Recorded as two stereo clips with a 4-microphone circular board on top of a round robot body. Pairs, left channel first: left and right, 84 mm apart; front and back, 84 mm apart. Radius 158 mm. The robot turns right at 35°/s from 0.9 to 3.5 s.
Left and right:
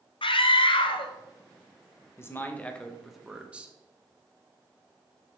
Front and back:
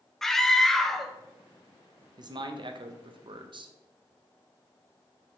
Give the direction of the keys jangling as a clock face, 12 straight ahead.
No keys jangling in this recording.